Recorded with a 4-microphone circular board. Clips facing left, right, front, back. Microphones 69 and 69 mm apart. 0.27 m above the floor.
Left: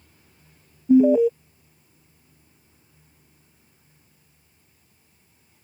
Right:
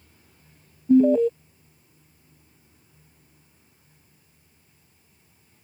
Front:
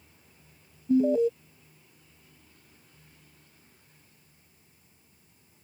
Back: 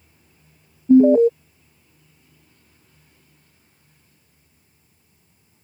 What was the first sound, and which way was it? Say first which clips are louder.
An alarm: left 2 dB, back 11 dB; 170° left.